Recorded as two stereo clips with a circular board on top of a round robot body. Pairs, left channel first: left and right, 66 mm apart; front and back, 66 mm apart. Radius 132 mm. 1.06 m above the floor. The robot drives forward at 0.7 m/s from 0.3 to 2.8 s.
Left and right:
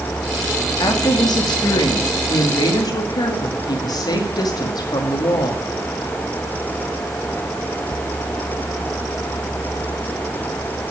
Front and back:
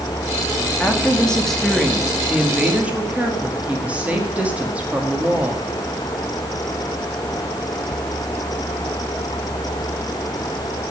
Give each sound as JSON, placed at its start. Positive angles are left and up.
{"t": 0.8, "sound": "a woman speaking", "azimuth_deg": 70, "distance_m": 2.0}